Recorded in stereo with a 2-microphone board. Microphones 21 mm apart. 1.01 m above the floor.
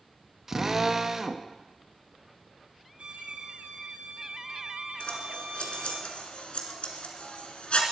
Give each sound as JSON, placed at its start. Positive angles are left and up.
{"t": 0.5, "sound": "a drill", "side_deg": -20, "distance_m": 0.8}
{"t": 3.0, "sound": "a violin", "side_deg": -70, "distance_m": 3.0}
{"t": 5.0, "sound": "scissors", "side_deg": 60, "distance_m": 2.0}